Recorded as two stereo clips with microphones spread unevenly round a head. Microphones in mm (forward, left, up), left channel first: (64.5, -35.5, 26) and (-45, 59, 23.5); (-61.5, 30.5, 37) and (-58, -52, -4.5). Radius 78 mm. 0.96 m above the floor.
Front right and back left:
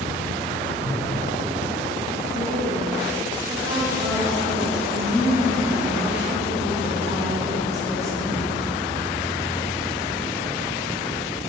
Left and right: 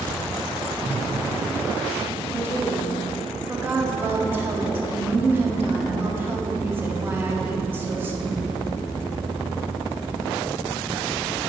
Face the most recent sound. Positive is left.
turn(degrees=-150)